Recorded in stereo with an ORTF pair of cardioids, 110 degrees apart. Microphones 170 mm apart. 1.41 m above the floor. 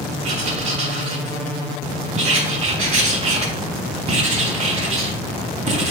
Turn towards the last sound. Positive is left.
turn(degrees=-40)